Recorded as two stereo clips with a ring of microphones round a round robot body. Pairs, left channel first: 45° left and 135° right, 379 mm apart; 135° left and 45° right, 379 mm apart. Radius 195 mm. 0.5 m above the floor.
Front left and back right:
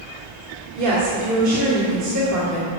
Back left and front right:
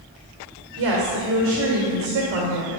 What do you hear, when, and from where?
0.8 s a woman speaking: 95° right, 1.8 m